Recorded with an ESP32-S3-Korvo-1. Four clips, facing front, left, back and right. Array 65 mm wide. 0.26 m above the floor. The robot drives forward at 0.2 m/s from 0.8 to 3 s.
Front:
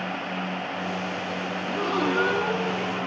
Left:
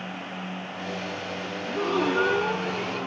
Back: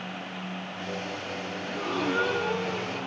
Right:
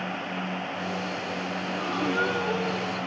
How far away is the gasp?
About 3 m.